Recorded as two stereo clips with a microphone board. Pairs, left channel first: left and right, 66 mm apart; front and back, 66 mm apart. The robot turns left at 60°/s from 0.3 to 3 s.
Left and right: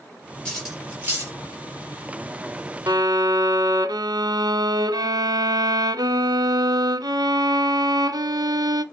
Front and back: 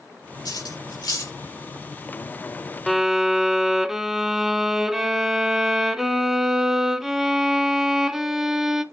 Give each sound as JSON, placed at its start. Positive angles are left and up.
{"t": 0.5, "sound": "cutlery clinking", "azimuth_deg": 15, "distance_m": 4.0}
{"t": 2.9, "sound": "a violin", "azimuth_deg": -90, "distance_m": 0.7}